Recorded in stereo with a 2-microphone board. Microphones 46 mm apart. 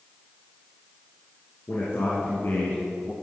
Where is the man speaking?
65° left (ahead or behind), 3 m; by 3.1 s 35° left (ahead or behind), 1.4 m.